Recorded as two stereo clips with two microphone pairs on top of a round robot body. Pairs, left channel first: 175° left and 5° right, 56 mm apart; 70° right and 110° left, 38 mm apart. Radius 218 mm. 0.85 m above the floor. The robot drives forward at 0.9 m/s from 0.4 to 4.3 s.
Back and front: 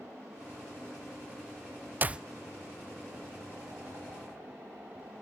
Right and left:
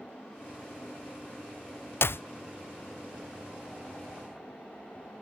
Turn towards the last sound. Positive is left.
turn(degrees=-165)